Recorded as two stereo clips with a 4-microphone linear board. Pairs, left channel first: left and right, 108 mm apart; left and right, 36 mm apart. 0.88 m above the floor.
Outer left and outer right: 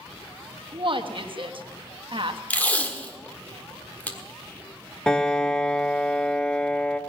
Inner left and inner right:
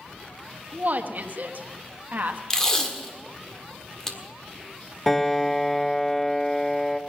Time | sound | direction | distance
0.7 | a woman speaking | 50° right (ahead or behind) | 1.2 m
2.5 | tape being pulled | 15° left (ahead or behind) | 1.5 m
5.1 | a piano | 10° left (ahead or behind) | 0.9 m